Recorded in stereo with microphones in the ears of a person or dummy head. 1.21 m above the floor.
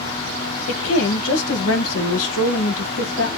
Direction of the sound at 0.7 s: 85° left.